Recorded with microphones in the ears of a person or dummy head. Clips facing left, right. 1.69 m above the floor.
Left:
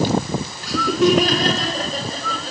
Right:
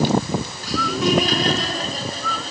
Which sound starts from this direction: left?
Laughter, at 0.6 s.